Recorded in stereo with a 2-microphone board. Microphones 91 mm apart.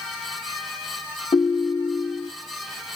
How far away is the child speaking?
I don't hear a child speaking.